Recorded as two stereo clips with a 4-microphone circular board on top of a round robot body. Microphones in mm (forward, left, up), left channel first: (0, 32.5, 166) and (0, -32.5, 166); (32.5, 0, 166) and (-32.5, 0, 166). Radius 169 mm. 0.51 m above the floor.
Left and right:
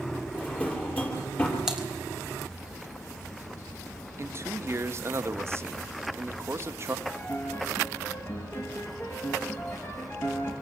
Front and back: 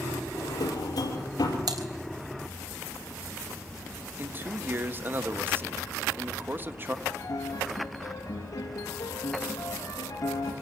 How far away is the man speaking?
About 1.8 m.